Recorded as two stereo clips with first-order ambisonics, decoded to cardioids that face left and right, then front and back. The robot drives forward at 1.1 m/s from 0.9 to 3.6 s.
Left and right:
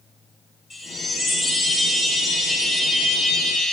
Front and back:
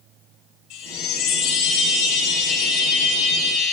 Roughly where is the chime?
Ahead.